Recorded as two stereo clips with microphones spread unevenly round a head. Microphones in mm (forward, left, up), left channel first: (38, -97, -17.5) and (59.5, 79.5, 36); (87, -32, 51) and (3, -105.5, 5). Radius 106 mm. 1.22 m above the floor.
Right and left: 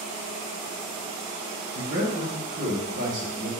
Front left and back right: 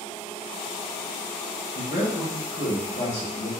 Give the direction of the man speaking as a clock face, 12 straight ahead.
11 o'clock.